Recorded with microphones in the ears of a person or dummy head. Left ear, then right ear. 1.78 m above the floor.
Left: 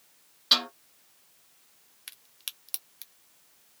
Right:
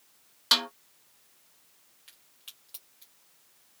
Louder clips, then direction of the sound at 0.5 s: Left 1 dB; 35° right (ahead or behind).